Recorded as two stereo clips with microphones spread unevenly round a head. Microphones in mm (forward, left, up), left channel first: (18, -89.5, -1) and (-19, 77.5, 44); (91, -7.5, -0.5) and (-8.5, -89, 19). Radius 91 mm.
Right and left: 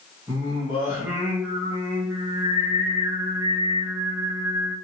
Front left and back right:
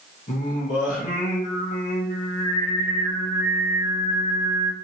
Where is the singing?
45° left, 1.1 m.